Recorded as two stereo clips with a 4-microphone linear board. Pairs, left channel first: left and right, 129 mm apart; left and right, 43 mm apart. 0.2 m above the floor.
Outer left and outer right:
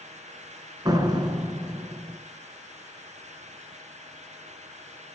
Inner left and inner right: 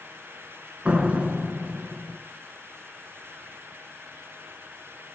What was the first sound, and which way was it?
A door slam, 30° right (ahead or behind).